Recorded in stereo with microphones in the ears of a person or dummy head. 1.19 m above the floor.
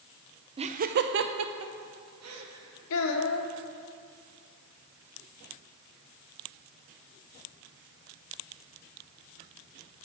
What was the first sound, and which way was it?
Laughter, 25° right (ahead or behind).